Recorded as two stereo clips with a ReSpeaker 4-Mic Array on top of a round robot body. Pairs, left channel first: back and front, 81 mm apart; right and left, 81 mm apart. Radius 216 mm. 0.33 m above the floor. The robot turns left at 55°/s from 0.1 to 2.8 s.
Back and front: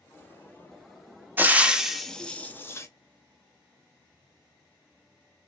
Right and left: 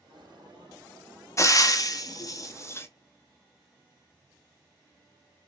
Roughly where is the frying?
Ahead right.